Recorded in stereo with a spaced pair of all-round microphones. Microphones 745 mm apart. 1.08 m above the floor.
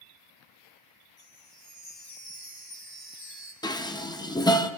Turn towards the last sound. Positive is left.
turn(degrees=5)  # may be behind; listen again after turning